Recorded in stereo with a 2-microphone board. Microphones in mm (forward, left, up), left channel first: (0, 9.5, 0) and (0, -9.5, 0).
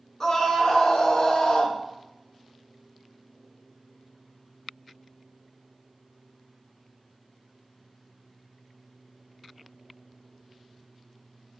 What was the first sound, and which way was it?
A scream, 25° left (ahead or behind).